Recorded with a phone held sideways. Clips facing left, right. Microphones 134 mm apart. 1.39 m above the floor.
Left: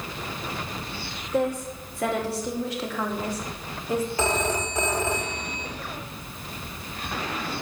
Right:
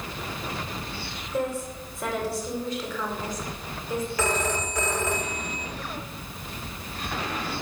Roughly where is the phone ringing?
Left.